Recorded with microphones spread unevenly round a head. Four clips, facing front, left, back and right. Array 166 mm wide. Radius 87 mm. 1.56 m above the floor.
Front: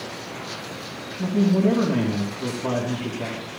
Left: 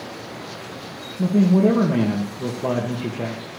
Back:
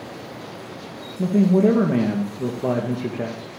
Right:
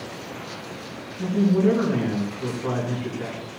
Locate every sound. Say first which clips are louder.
1.2 s a man speaking: left 3 dB, back 3 dB; 145° left, 2.5 m